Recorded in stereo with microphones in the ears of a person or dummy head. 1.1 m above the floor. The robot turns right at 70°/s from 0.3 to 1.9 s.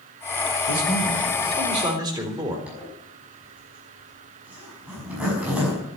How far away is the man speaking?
About 3.5 m.